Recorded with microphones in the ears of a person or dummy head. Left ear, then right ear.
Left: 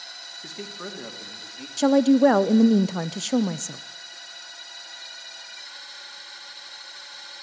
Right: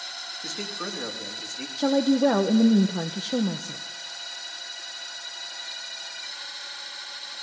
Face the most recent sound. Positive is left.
turn(degrees=70)  # may be behind; listen again after turning